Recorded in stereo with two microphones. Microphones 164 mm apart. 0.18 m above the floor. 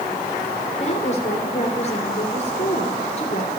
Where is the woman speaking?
40° left (ahead or behind), 3 m.